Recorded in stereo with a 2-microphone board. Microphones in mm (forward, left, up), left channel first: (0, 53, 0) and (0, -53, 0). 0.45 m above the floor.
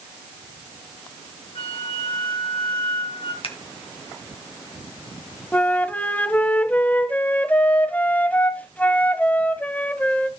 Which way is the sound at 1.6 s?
70° left (ahead or behind).